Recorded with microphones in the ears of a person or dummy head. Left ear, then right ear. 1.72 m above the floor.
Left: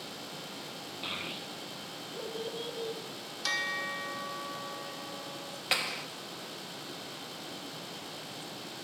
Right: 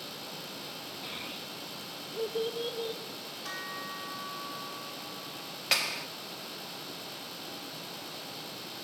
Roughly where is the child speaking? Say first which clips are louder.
Left 4 dB; left.